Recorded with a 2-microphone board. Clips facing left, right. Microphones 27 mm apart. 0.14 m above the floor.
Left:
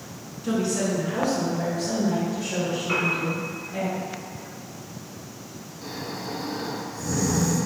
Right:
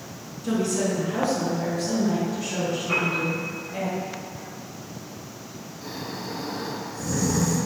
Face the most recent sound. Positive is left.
turn(degrees=0)  # may be behind; listen again after turning